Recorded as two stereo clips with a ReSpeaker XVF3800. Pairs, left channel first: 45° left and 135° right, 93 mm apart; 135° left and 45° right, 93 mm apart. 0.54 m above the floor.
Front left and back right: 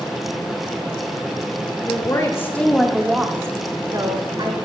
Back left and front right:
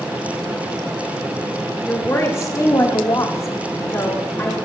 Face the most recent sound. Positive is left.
turn(degrees=-160)